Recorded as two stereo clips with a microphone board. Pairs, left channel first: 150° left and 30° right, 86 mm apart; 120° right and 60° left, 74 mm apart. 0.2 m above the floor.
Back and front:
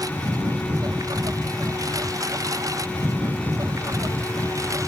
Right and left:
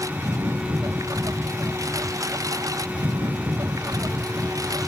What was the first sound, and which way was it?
A lawn mower, 15° left.